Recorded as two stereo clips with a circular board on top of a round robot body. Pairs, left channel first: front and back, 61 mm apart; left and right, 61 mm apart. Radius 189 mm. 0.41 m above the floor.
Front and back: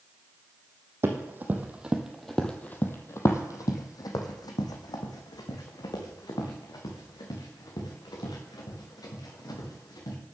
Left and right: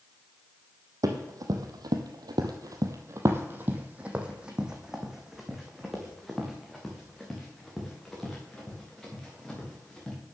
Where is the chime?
I don't hear a chime.